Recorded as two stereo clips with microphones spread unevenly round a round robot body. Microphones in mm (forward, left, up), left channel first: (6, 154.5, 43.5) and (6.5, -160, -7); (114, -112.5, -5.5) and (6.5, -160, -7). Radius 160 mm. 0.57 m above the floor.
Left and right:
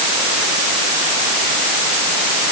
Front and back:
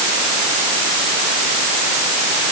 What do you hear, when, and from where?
Only background noise.